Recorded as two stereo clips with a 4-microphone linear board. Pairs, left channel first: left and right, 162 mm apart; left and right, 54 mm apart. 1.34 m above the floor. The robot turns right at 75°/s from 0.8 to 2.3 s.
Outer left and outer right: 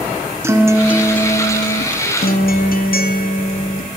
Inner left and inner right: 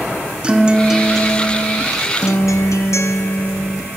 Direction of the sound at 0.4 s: 20° right.